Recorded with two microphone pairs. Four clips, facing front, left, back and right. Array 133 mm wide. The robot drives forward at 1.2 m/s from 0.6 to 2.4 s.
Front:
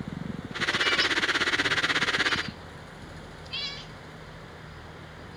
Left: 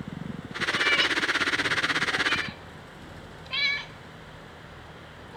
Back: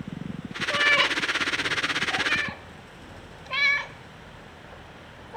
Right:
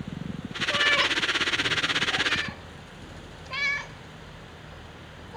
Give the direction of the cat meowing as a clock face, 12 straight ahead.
5 o'clock.